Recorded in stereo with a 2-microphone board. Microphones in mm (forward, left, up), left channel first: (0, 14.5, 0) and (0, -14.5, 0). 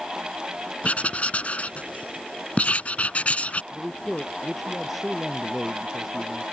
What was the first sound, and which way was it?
Writing, 50° left (ahead or behind).